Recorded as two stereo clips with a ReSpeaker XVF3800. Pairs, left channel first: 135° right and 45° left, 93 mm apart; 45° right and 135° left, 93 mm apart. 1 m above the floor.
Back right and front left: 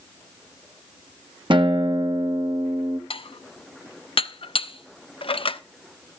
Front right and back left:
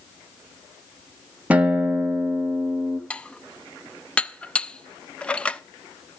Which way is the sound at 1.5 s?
60° left.